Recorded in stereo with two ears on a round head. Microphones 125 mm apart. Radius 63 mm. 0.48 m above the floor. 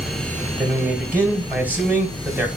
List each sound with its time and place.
0.6 s a man speaking: 10° right (ahead or behind), 1.6 m